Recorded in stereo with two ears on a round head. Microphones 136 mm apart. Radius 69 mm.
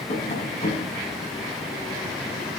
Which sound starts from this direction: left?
Tapping, at 0.1 s.